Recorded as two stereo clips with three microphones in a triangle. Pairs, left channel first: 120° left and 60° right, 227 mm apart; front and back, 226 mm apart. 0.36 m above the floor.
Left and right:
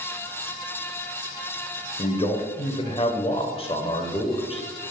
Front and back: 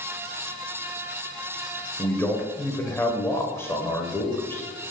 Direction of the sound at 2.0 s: 70° left.